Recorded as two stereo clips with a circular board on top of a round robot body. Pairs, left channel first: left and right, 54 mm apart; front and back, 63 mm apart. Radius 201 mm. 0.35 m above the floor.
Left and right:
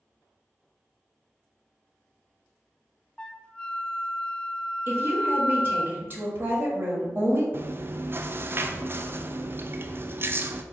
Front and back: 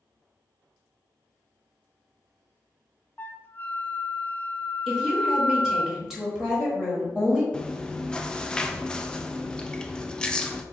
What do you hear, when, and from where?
3.2 s a flute: 30° left, 0.5 m
4.9 s a woman speaking: 100° right, 1.5 m
7.5 s chewing: 70° right, 0.5 m